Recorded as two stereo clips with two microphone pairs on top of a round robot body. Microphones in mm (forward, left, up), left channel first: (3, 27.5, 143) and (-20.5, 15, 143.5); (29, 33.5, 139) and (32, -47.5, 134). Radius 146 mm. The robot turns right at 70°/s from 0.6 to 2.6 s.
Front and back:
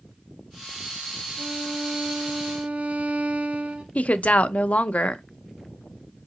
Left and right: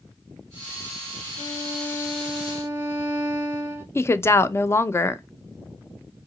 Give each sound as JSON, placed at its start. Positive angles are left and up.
{"t": 1.4, "sound": "a violin", "azimuth_deg": 130, "distance_m": 0.9}
{"t": 4.0, "sound": "a woman speaking", "azimuth_deg": 35, "distance_m": 0.6}